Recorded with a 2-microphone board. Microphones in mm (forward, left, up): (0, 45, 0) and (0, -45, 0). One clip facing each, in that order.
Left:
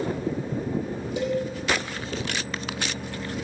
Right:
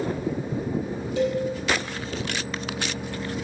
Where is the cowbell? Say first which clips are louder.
Right 2 dB; 20° left (ahead or behind), 3.5 m.